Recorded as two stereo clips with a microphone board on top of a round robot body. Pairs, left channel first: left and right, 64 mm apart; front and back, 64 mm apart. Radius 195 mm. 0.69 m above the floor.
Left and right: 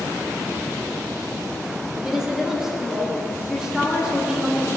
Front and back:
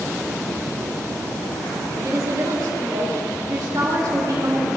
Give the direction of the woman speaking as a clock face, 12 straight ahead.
6 o'clock.